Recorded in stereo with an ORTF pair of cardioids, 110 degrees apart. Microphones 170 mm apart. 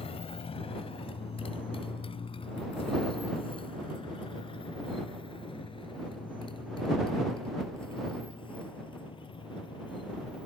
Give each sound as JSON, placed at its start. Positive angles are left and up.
{"t": 0.0, "sound": "a motorcycle", "azimuth_deg": 35}